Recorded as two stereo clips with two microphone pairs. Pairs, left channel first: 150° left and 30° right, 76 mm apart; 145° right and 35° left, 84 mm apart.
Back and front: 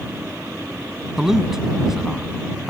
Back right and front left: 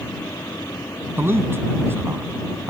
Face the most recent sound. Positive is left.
turn(degrees=45)